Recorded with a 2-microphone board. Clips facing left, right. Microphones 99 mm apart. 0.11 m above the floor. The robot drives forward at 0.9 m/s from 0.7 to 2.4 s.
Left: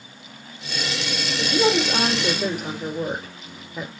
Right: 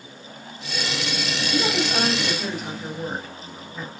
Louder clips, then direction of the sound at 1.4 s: Left 5 dB; 70° left (ahead or behind).